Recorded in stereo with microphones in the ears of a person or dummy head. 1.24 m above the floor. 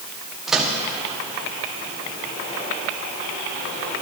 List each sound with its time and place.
0.5 s a microwave: 5° right (ahead or behind), 1.5 m